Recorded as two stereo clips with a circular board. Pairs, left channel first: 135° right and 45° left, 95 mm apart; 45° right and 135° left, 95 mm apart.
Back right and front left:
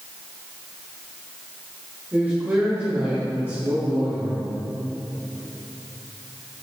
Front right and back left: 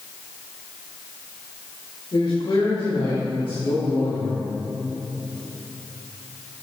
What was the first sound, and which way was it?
A man speaking, 25° right.